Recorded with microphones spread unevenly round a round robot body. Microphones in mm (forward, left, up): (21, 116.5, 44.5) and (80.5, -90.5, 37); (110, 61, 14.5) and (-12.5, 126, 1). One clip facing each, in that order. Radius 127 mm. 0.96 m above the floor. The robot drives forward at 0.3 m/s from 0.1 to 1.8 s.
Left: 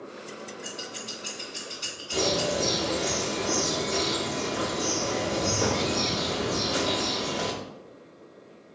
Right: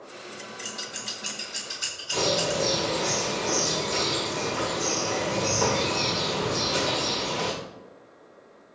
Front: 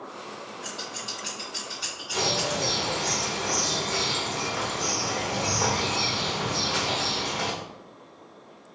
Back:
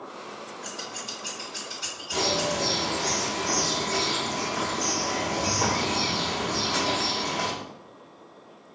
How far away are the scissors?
About 1.8 m.